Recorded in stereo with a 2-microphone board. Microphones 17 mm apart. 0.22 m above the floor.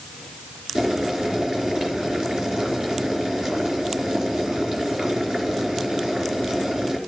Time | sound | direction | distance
0.8 | boiling | 50° right (ahead or behind) | 4 m